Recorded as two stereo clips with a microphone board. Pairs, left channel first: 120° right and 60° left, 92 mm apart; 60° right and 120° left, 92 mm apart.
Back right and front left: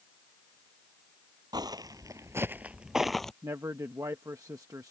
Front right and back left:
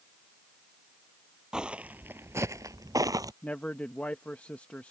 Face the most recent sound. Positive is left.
turn(degrees=15)